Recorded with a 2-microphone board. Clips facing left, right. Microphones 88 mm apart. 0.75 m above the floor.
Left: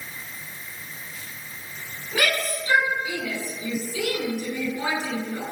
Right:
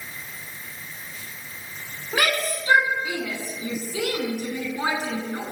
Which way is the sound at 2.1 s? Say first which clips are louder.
Right 1 dB; 40° right (ahead or behind).